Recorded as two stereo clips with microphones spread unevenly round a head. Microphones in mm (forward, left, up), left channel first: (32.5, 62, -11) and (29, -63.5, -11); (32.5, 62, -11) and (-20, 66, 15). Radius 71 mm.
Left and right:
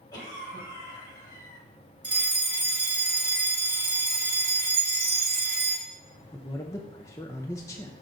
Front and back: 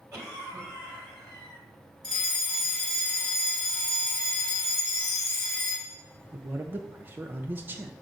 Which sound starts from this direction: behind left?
A cough, at 0.1 s.